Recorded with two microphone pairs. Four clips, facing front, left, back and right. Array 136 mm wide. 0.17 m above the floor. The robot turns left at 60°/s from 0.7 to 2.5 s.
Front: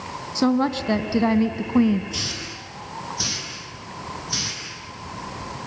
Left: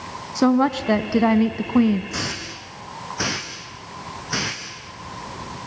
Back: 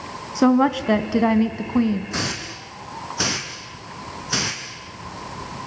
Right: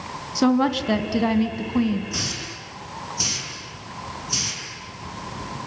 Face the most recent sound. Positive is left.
turn(degrees=140)